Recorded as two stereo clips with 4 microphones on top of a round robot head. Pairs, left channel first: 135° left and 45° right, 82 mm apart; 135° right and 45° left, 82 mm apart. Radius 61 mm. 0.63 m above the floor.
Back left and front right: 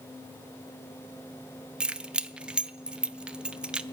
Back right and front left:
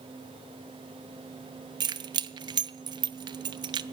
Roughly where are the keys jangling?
Ahead left.